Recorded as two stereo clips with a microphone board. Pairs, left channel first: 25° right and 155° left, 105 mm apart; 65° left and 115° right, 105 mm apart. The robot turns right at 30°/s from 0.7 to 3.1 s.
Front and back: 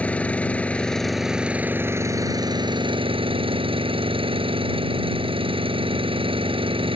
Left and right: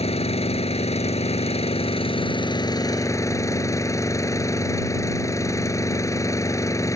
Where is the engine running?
55° left; by 7.0 s 125° left.